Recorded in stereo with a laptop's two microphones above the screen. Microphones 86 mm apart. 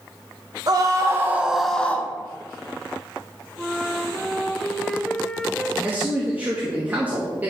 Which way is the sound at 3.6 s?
5° left (ahead or behind).